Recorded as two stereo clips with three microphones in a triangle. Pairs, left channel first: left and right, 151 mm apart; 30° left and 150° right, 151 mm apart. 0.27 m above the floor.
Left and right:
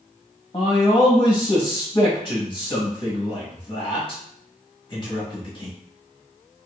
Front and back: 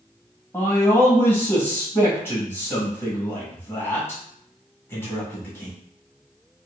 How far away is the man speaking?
About 1.0 m.